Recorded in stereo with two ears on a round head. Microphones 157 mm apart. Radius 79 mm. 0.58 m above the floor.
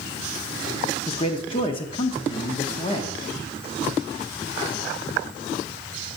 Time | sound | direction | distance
1.1 | a man speaking | 30° left (ahead or behind) | 0.9 m